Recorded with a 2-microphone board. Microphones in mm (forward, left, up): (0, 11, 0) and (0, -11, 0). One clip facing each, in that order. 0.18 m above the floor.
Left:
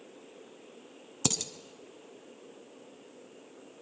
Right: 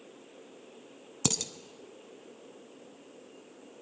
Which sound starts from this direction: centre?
Dishes clattering, at 1.2 s.